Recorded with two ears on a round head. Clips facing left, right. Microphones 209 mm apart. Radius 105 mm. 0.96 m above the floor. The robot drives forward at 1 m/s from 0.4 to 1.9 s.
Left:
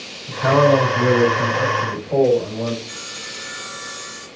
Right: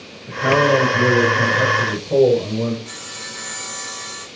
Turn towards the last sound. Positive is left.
turn(degrees=-90)